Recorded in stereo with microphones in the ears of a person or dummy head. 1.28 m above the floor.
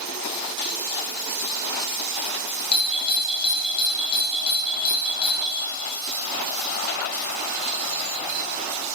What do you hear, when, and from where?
2.7 s a doorbell: 20° left (ahead or behind), 1.1 m